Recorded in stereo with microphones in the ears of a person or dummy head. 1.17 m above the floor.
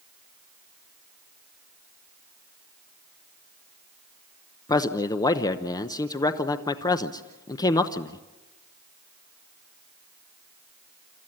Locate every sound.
4.7 s a man speaking: 25° left (ahead or behind), 0.9 m